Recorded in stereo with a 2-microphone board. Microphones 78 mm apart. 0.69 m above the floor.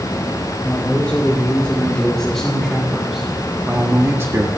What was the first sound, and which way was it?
A man speaking, 15° left (ahead or behind).